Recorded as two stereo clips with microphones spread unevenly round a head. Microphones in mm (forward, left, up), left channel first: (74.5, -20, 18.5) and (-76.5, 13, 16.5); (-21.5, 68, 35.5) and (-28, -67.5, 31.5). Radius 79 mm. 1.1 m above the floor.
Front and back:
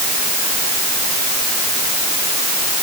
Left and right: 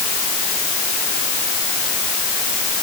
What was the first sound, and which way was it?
Only background noise.